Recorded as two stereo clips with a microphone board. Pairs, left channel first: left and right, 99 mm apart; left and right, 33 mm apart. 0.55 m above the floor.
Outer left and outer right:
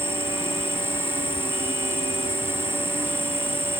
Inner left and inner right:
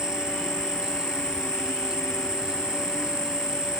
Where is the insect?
25° right (ahead or behind).